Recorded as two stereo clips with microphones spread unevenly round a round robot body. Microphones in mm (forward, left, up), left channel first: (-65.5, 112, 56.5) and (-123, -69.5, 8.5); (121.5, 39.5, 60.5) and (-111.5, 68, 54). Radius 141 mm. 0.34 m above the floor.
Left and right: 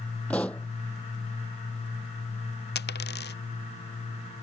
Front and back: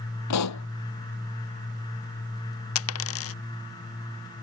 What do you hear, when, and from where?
0.3 s a pop: 10° right
2.8 s a dropped coin: 15° left